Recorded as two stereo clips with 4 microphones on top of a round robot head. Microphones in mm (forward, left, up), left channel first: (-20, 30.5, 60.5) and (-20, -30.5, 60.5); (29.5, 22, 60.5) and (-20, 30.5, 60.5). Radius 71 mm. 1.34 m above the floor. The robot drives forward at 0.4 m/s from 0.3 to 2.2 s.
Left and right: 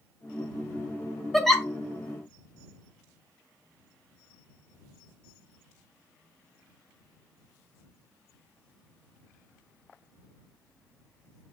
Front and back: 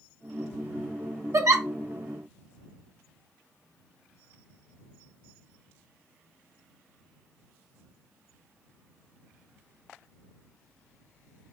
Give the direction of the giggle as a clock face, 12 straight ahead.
6 o'clock.